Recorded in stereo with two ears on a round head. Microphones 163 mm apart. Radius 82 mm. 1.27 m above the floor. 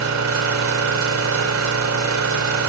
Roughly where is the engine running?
Right.